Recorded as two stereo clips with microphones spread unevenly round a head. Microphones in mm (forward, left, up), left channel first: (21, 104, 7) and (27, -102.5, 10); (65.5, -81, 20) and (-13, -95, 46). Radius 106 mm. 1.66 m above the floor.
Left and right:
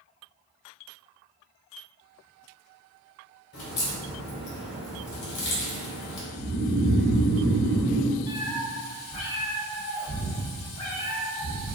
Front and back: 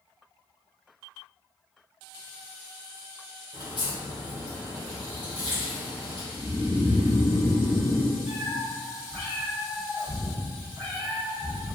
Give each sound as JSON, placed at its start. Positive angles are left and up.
{"t": 3.5, "sound": "a crack", "azimuth_deg": 85, "distance_m": 0.8}
{"t": 6.3, "sound": "snoring", "azimuth_deg": -55, "distance_m": 0.7}
{"t": 8.3, "sound": "a cat meowing", "azimuth_deg": 125, "distance_m": 1.0}